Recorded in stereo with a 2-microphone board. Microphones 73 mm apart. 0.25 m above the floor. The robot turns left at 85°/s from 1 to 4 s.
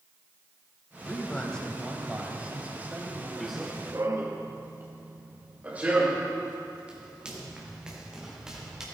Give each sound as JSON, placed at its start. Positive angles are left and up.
{"t": 1.0, "sound": "a man speaking", "side_deg": 20, "distance_m": 1.4}
{"t": 3.4, "sound": "running footsteps", "side_deg": 5, "distance_m": 1.3}